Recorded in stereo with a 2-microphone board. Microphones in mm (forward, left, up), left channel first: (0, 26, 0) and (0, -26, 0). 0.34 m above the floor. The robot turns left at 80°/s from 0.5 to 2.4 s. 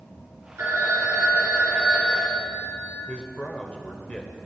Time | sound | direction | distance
0.6 | a phone ringing | 50° right | 3 m
3.1 | a man speaking | 25° left (ahead or behind) | 0.8 m